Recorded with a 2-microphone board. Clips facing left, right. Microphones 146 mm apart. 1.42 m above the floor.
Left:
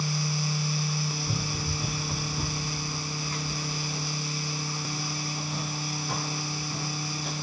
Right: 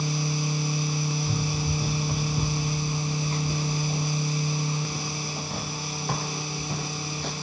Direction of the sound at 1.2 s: 10° right (ahead or behind).